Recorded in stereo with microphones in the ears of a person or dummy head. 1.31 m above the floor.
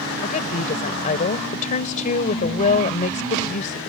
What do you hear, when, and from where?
0.2 s a woman speaking: 40° left (ahead or behind)